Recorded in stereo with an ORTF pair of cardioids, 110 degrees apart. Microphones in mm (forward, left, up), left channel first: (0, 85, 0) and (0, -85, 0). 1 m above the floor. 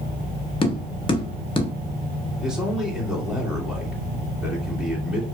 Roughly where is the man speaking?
Ahead.